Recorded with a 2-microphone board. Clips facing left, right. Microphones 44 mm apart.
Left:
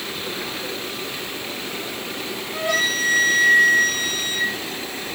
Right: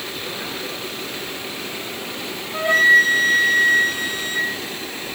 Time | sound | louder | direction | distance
2.5 | a flute | right 9 dB | 25° right (ahead or behind) | 7.5 m